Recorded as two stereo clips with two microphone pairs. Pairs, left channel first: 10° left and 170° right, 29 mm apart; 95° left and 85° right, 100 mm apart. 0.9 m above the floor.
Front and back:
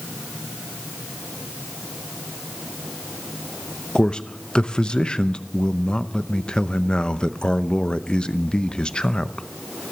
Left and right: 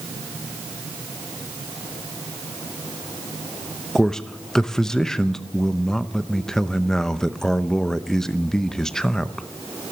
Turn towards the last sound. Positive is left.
turn(degrees=20)